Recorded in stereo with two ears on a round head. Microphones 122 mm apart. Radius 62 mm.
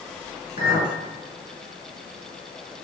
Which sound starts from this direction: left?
A clink, at 0.6 s.